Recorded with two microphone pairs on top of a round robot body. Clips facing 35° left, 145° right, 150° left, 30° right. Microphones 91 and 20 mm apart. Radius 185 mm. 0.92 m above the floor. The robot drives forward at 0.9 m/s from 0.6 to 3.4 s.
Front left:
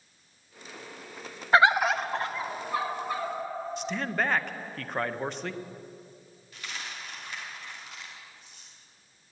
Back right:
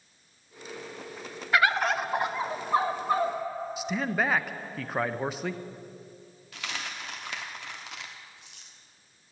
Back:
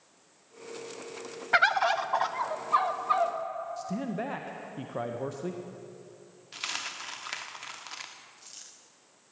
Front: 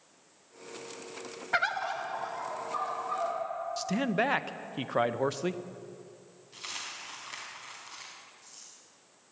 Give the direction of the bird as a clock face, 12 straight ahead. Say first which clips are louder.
Front left 3 dB, back 6 dB; 9 o'clock.